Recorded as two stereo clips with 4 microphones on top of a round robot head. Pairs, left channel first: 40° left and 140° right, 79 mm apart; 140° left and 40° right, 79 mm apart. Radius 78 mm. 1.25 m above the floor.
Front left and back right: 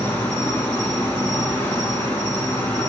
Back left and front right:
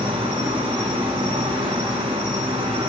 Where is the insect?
30° right, 1.5 m.